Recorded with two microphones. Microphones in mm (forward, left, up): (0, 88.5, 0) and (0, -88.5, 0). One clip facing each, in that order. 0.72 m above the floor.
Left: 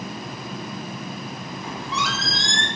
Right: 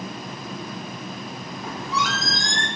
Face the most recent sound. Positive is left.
turn(degrees=-45)  # may be behind; listen again after turning